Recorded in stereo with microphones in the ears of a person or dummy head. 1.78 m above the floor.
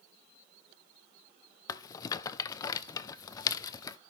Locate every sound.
1.7 s a rattle: 25° left (ahead or behind), 0.5 m